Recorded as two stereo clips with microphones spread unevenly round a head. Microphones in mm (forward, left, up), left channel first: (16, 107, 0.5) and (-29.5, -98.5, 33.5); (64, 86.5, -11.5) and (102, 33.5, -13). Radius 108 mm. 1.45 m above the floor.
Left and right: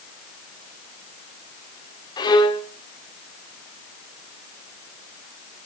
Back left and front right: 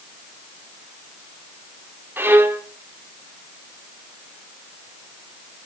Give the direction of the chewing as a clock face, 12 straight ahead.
No chewing in this recording.